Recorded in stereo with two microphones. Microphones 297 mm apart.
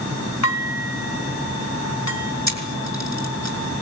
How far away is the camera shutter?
About 5.5 m.